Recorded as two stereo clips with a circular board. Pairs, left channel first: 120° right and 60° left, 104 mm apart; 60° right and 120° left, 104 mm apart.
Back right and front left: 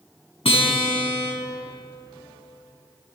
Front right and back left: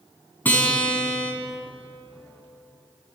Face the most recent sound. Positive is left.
turn(degrees=-130)